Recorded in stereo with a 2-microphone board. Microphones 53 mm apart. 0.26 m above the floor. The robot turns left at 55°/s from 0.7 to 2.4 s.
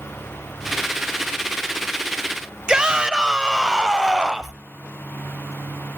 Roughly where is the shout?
Centre.